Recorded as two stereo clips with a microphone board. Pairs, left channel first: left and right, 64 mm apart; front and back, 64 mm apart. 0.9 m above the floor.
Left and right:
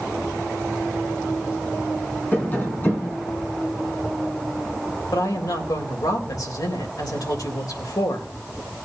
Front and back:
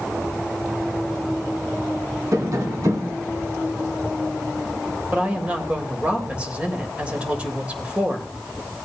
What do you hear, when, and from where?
2.3 s tapping: 150° left, 3 m
5.1 s a woman speaking: 110° left, 3 m